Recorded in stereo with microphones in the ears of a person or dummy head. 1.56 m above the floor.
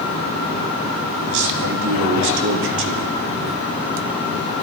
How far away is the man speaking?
About 3 m.